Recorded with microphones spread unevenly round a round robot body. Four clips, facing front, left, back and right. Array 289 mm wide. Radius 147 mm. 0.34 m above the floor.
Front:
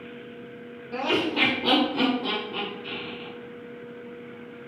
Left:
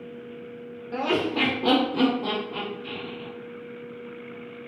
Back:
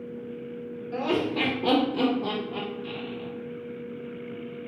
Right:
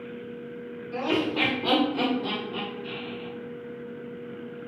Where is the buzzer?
No buzzer in this recording.